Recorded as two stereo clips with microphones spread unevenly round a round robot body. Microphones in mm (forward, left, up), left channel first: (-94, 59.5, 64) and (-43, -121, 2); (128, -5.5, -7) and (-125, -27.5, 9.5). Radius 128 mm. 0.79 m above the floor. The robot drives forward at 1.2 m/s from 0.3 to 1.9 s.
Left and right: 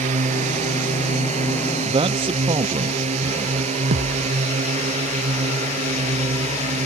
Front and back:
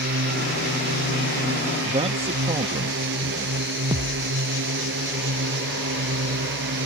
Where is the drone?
125° right.